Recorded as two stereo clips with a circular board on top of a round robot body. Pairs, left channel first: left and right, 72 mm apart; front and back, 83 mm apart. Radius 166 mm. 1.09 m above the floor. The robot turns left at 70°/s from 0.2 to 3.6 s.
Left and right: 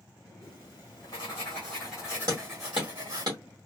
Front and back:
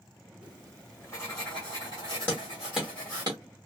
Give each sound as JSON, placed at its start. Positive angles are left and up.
{"t": 0.4, "sound": "writing", "azimuth_deg": 110, "distance_m": 0.8}
{"t": 2.3, "sound": "hammering", "azimuth_deg": -65, "distance_m": 0.8}